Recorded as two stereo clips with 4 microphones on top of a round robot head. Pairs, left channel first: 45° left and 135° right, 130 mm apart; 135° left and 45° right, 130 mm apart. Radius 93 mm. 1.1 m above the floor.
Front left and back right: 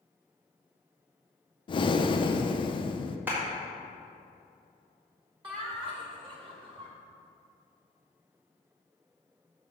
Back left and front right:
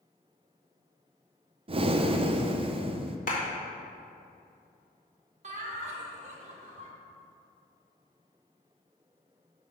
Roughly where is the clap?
Behind left.